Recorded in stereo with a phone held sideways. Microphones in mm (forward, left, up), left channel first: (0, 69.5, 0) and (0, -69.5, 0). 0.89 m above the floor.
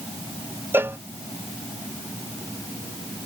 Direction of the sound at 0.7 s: 15° right (ahead or behind).